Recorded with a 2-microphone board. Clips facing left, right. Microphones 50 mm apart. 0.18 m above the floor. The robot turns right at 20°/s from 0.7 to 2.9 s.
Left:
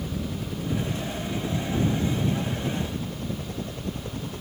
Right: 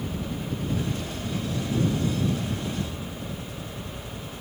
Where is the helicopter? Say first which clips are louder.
Even; 5° left (ahead or behind); by 4.4 s 50° left (ahead or behind).